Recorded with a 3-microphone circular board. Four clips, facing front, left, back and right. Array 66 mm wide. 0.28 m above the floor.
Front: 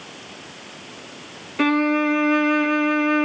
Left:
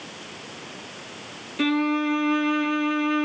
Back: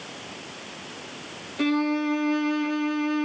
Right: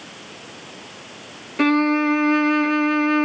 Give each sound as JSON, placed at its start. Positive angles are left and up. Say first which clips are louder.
{"t": 1.6, "sound": "a violin", "louder": "right 5 dB, front 5 dB", "azimuth_deg": -45, "distance_m": 1.2}